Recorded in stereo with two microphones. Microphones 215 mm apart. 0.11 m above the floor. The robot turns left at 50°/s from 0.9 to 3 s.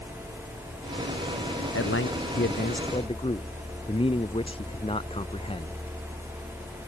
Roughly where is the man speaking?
Left.